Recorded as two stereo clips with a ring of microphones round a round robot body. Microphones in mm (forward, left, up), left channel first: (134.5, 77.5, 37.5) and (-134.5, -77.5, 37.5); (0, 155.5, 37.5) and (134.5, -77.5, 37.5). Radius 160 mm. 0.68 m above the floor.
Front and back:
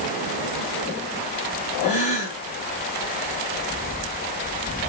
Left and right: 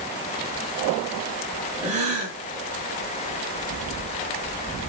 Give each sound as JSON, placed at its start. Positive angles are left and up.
{"t": 1.8, "sound": "a gasp", "azimuth_deg": -40, "distance_m": 5.0}